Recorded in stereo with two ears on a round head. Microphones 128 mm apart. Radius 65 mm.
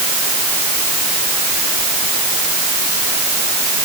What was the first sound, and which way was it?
Only background noise.